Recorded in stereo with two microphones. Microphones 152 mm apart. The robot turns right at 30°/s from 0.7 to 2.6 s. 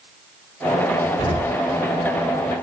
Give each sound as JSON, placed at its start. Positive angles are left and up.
{"t": 1.2, "sound": "an explosion", "side_deg": 35, "distance_m": 1.7}